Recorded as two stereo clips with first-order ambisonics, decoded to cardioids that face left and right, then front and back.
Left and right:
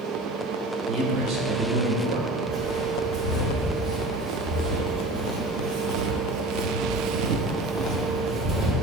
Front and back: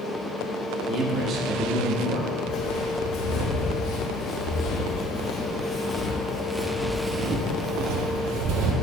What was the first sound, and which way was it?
A man speaking, 130° right.